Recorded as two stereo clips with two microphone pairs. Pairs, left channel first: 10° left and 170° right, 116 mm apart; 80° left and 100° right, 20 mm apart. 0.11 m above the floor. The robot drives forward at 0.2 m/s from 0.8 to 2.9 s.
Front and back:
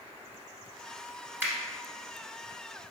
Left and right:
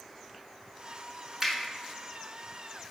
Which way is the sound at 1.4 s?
135° right.